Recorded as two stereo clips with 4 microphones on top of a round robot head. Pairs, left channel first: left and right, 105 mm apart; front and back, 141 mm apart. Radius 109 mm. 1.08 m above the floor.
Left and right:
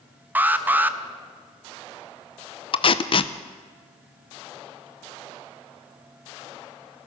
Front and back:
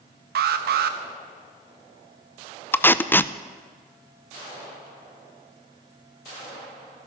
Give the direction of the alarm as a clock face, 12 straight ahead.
5 o'clock.